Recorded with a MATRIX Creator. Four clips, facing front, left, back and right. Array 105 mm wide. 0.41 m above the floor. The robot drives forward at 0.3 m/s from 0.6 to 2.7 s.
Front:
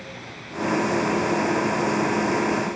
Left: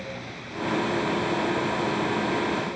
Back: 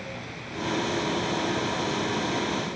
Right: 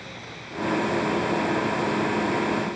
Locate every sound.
Only background noise.